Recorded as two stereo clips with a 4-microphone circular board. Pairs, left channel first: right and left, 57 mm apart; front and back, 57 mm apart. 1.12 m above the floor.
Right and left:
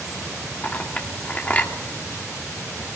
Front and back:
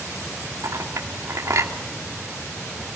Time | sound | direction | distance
0.6 | a clink | 155° right | 2 m